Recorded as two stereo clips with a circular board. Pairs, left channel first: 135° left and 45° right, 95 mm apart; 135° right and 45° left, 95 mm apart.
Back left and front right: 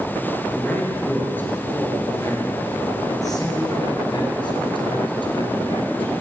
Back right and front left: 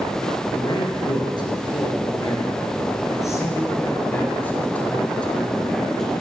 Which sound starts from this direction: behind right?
A man speaking, at 0.5 s.